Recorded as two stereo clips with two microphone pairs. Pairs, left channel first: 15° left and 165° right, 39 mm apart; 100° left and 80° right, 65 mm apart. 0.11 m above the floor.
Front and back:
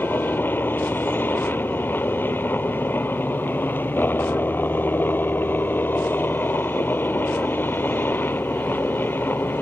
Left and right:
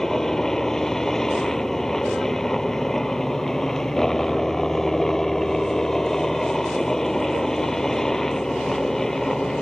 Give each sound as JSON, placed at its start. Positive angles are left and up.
{"t": 0.0, "sound": "a helicopter", "azimuth_deg": 15}